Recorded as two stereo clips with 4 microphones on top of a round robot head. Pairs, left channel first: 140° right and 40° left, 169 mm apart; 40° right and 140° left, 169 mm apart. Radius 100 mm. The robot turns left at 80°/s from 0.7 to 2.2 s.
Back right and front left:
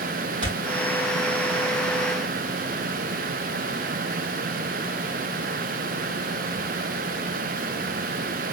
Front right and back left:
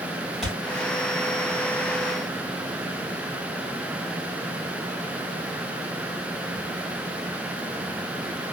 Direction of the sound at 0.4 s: 50° left.